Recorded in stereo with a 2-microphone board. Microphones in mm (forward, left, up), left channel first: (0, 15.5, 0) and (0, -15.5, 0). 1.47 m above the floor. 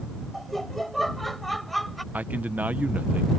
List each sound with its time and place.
0.3 s laughter: 5° left (ahead or behind)
2.1 s a man speaking: 75° right (ahead or behind)